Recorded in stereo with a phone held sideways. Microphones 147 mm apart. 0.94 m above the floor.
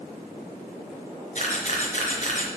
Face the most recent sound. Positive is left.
turn(degrees=55)  # may be behind; listen again after turning